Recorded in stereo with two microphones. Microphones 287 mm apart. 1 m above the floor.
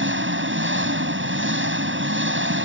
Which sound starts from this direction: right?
An engine running, at 0.0 s.